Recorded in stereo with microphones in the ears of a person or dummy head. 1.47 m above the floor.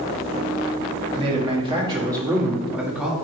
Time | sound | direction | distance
1.1 | a man speaking | 35° right (ahead or behind) | 3 m